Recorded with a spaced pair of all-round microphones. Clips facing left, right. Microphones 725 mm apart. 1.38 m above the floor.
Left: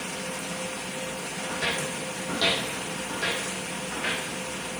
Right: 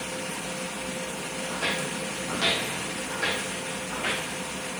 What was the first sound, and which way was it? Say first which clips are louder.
Footsteps: left 1 dB; 45° left (ahead or behind).